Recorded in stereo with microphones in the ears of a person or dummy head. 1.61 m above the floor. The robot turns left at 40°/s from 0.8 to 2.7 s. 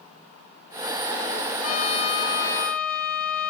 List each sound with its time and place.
1.6 s a trumpet: 50° left, 1.4 m; by 3.5 s 5° left, 1.4 m